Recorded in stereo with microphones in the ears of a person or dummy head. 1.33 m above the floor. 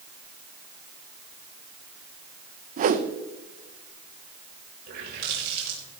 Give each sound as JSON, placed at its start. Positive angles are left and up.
{"t": 2.8, "sound": "a whoosh", "side_deg": -40, "distance_m": 0.8}
{"t": 4.9, "sound": "a running tap", "side_deg": -60, "distance_m": 4.5}